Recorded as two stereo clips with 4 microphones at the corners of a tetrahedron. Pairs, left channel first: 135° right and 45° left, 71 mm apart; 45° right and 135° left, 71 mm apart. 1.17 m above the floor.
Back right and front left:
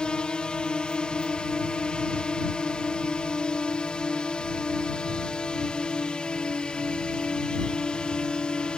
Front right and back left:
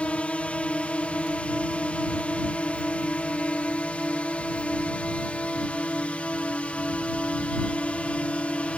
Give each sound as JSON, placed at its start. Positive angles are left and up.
{"t": 0.0, "sound": "a drone", "azimuth_deg": -85}